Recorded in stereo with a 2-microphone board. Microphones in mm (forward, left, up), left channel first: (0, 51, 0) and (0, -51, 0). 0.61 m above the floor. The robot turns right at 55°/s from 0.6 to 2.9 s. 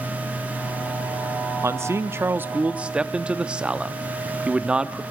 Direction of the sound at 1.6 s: 25° right (ahead or behind).